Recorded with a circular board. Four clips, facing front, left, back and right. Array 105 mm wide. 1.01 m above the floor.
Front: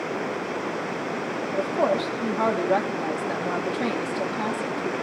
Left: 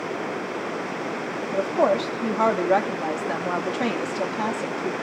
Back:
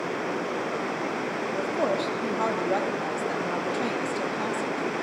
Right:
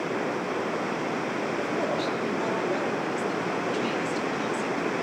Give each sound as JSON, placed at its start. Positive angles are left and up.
{"t": 1.5, "sound": "a woman speaking", "azimuth_deg": 75, "distance_m": 2.5}